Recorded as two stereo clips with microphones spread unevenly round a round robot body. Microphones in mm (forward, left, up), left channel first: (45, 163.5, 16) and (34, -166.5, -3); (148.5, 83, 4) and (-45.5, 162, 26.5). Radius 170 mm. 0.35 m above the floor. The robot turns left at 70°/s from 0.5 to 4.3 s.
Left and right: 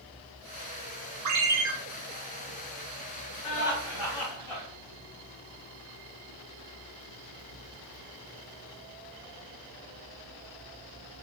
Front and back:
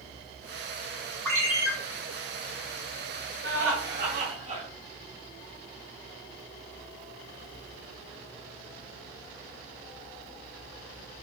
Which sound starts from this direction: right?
A ringtone, at 1.2 s.